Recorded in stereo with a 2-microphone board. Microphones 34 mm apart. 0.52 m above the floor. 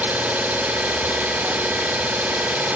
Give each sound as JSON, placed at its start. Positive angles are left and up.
{"t": 0.0, "sound": "an engine running", "side_deg": -65, "distance_m": 0.7}